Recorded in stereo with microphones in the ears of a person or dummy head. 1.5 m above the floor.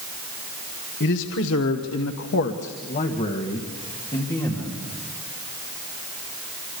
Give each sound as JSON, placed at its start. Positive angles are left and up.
{"t": 1.0, "sound": "a man speaking", "side_deg": 60, "distance_m": 1.7}